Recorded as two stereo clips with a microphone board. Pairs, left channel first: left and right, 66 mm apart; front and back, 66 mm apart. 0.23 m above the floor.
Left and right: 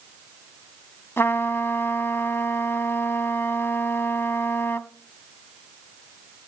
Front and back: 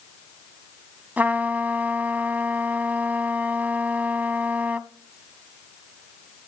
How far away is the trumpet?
About 0.9 m.